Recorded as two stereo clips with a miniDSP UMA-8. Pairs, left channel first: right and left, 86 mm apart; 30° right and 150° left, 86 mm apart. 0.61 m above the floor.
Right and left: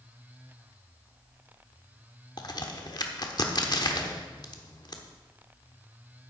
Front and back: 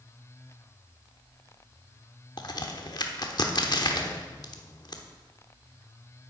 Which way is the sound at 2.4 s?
55° right.